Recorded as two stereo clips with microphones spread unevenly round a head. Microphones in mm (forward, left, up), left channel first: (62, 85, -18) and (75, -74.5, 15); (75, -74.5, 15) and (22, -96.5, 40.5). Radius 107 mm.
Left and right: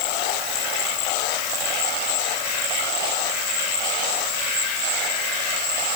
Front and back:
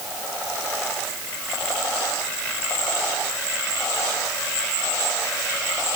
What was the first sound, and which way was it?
Only background noise.